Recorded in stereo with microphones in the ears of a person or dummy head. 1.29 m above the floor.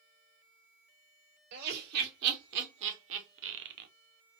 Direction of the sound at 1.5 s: 60° right (ahead or behind).